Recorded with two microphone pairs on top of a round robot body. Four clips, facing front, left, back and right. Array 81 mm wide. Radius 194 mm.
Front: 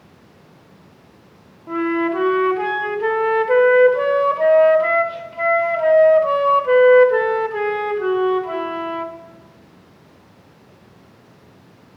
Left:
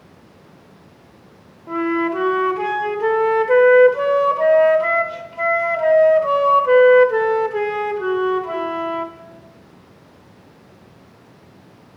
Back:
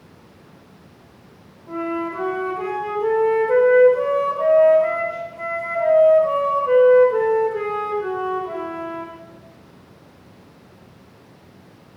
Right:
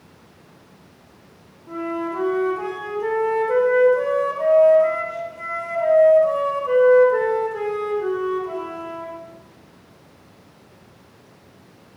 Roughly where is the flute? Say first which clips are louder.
Left 6 dB, front 5 dB; ahead left.